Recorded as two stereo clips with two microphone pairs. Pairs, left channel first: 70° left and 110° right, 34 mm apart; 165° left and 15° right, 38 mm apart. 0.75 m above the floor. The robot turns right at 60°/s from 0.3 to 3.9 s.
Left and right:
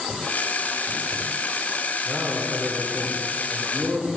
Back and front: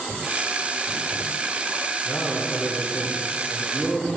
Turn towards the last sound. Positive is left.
turn(degrees=-85)